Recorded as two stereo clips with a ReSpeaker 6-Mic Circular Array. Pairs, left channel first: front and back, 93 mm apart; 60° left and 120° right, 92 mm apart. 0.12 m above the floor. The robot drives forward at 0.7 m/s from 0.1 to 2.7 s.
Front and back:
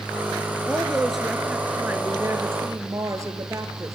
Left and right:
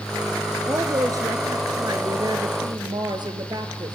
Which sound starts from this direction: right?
A woman speaking, at 0.7 s.